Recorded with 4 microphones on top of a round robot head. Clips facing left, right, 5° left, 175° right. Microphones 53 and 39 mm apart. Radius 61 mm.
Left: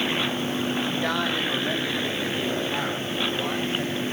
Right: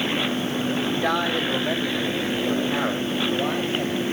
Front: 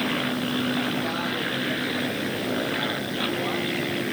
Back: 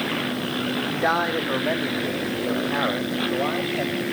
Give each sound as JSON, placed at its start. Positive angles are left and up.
{"t": 0.9, "sound": "a man speaking", "azimuth_deg": -175, "distance_m": 1.2}